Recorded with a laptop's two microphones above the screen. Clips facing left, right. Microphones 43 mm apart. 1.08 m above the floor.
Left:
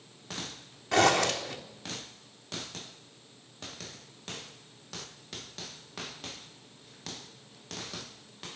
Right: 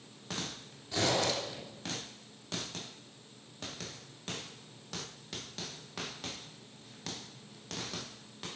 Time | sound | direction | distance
0.9 | a zipper | 75° left (ahead or behind) | 3.5 m